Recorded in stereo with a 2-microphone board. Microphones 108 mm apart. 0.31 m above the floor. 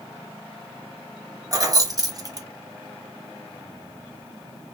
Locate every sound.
1.5 s keys jangling: 35° right (ahead or behind), 0.8 m